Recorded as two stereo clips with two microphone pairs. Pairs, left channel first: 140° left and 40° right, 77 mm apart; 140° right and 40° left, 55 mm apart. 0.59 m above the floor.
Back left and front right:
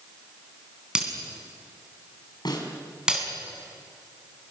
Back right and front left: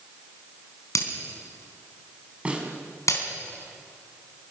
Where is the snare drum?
110° left, 4 m.